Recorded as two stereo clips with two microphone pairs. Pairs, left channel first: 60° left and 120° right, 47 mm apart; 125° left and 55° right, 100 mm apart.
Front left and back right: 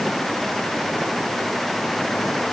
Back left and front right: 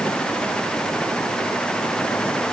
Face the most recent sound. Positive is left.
No sound to turn to.